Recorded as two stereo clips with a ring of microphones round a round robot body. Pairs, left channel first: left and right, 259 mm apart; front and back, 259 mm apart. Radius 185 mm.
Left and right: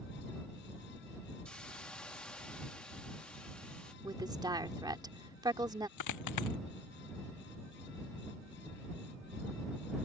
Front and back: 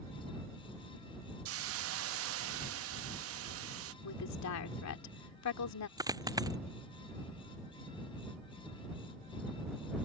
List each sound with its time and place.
1.4 s a hiss: 175° left
4.0 s a woman speaking: 15° right
6.0 s a dropped coin: 105° left